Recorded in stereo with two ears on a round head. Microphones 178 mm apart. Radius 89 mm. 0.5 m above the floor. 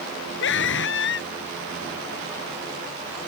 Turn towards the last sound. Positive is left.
turn(degrees=60)  # may be behind; listen again after turning